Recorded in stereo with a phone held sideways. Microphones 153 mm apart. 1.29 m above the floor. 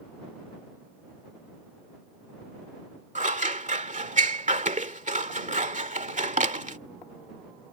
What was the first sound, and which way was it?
Scissors, 55° right (ahead or behind).